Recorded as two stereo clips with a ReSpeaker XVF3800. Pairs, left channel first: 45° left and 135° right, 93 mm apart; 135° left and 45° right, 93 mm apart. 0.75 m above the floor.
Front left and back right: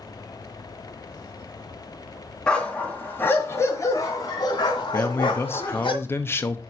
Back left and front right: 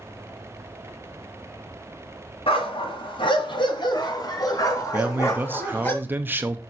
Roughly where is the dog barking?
Behind left.